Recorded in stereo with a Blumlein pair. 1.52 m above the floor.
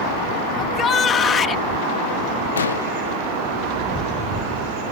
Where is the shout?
25° left.